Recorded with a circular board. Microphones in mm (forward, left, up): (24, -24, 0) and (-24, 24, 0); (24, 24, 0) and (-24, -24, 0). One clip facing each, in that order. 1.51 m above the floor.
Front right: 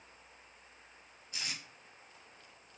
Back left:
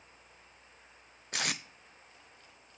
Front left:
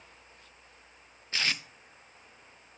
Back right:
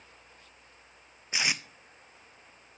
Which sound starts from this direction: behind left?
Tape being pulled, at 1.3 s.